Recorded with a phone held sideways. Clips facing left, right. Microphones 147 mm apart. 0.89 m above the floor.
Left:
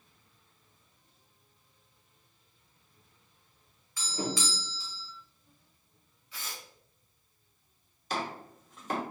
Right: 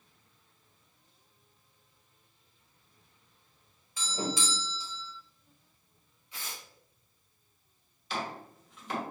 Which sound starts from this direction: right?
A doorbell, at 4.0 s.